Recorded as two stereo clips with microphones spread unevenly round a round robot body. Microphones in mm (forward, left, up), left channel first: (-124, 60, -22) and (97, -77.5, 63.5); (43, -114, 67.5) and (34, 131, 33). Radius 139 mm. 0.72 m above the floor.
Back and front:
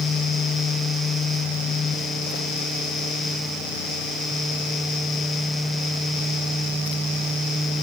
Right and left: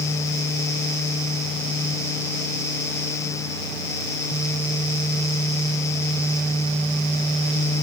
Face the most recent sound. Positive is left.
No sound to turn to.